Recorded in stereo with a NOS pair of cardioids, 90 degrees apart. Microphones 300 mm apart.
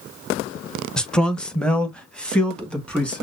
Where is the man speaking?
5° left, 0.9 m.